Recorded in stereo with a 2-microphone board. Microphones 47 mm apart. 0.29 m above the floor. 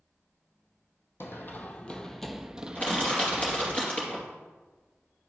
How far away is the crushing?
About 2.5 m.